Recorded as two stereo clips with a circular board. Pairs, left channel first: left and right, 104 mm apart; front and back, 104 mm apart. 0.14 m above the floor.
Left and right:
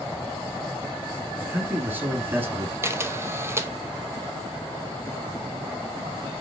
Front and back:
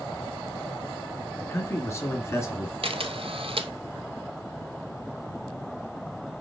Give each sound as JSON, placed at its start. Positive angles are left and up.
{"t": 1.4, "sound": "a man speaking", "azimuth_deg": -40, "distance_m": 1.8}
{"t": 2.8, "sound": "a camera shutter", "azimuth_deg": -155, "distance_m": 0.7}